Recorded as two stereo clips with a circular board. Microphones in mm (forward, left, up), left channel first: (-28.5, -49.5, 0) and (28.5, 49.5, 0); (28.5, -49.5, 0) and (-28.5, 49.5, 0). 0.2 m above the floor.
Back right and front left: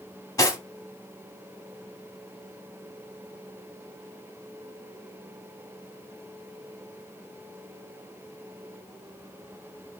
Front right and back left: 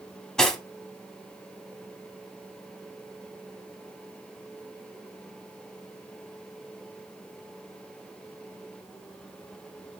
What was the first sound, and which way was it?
Cutlery clinking, 140° right.